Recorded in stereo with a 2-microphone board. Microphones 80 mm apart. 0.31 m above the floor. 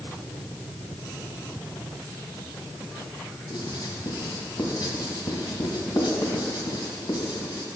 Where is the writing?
60° left (ahead or behind), 2.5 m.